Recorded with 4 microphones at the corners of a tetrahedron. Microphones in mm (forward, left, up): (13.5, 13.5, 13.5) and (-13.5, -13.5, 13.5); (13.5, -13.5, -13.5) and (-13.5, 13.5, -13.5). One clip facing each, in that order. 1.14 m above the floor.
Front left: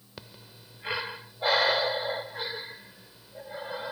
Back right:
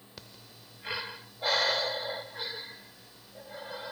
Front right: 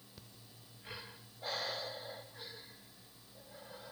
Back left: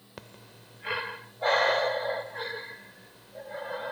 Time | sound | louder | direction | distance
0.2 | breathing | front left 4 dB, back left 14 dB | 115° left | ?